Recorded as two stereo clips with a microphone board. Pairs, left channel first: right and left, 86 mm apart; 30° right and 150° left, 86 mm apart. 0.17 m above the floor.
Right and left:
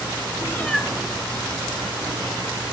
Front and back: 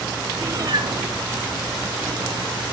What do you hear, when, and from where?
0.4 s a cat meowing: 145° right, 1.1 m; by 2.6 s 105° left, 3 m